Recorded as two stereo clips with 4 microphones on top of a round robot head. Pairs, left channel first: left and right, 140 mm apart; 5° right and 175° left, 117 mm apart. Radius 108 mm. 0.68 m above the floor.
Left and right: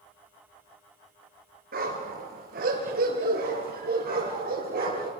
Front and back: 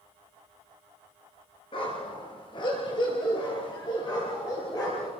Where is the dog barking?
65° right, 5 m; by 5.1 s 70° right, 8 m.